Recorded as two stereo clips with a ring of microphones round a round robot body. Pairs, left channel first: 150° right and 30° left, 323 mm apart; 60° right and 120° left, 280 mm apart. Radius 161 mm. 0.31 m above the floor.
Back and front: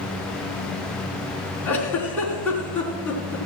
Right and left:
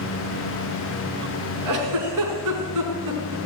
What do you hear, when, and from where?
1.6 s a giggle: 125° left, 3 m